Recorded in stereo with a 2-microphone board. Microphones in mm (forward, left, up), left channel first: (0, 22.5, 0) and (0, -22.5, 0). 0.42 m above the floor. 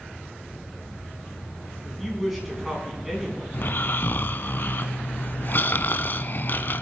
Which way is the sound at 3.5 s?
50° left (ahead or behind).